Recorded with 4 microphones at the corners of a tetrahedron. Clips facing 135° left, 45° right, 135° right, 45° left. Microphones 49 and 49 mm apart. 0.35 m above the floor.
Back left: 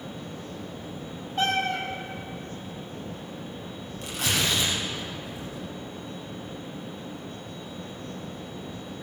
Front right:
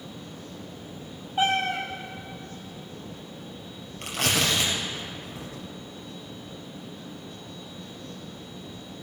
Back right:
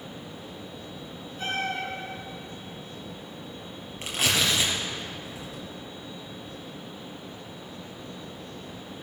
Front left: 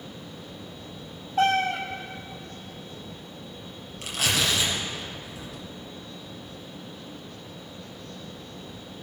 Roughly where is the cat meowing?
Ahead left.